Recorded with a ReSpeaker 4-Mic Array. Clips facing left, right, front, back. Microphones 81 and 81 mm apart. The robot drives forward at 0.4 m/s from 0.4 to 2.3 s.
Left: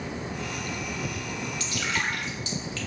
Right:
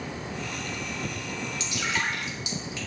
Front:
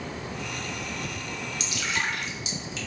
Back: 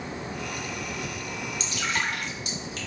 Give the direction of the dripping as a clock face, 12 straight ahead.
5 o'clock.